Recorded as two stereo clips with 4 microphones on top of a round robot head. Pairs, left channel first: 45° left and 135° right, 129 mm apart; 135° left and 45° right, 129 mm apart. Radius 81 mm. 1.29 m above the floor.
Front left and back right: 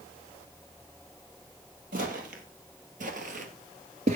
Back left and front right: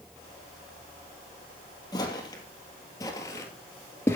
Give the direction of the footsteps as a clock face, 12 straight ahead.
5 o'clock.